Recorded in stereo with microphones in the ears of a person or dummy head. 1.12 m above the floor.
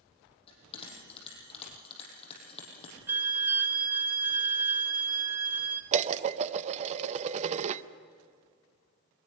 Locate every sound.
0.5 s a bell: 30° left (ahead or behind), 7 m
3.1 s a violin: 10° right (ahead or behind), 0.9 m
5.9 s dishes clattering: 35° right (ahead or behind), 0.6 m